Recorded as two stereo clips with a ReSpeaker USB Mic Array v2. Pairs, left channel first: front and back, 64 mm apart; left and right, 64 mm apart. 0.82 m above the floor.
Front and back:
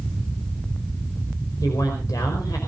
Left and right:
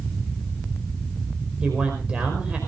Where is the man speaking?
15° right, 4.5 m.